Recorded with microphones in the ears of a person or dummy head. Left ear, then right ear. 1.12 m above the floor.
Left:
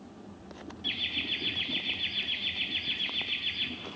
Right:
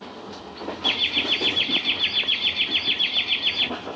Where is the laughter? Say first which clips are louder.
Right 10 dB; 40° right (ahead or behind), 1.0 m.